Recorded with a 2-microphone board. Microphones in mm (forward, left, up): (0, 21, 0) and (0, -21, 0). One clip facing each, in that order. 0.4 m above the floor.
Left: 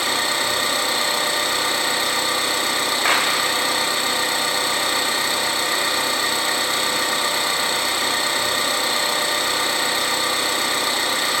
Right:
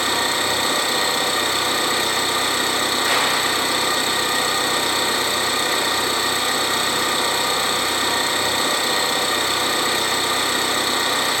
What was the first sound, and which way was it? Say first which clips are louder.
An engine running: right 1 dB; 35° right (ahead or behind).